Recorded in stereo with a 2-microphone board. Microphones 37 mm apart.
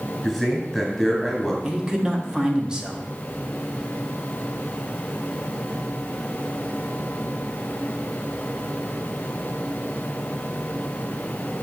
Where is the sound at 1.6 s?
20° right (ahead or behind), 1.1 m.